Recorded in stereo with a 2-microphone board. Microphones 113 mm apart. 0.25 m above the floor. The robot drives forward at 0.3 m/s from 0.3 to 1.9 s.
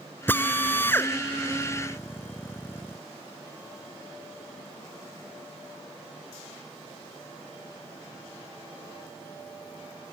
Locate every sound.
0.3 s a drill: 20° left (ahead or behind)